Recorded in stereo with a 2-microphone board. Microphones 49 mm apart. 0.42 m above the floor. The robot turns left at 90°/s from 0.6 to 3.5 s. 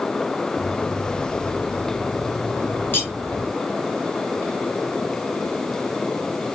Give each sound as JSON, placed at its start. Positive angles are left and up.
{"t": 2.9, "sound": "cutlery clinking", "side_deg": 45, "distance_m": 1.9}